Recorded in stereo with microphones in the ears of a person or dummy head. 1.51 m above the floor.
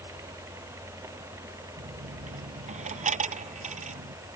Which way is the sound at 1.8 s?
35° right (ahead or behind).